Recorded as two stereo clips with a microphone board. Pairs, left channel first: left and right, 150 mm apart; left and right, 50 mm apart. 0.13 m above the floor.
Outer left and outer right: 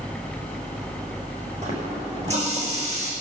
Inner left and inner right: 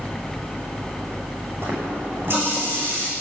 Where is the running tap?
45° right (ahead or behind), 5 m.